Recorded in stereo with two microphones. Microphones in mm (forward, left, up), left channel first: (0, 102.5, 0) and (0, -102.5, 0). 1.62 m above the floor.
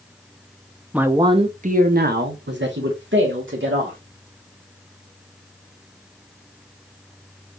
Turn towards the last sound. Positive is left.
turn(degrees=-70)  # may be behind; listen again after turning